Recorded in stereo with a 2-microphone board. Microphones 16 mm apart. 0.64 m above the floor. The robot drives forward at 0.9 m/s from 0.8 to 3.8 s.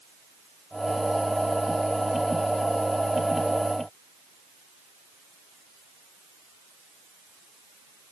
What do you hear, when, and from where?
Only background noise.